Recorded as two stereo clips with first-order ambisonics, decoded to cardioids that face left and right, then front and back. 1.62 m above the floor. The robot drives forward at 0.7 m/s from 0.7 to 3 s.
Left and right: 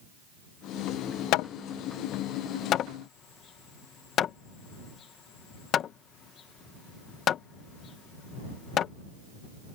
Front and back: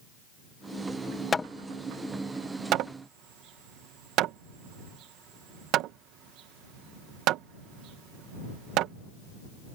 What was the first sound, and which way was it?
Hammering, 70° left.